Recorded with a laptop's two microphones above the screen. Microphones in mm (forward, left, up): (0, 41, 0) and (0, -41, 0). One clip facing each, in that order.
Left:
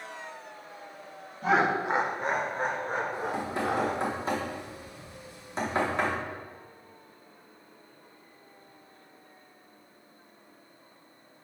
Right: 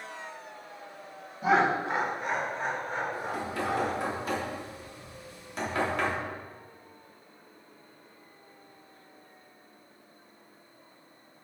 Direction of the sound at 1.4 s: 5° right (ahead or behind).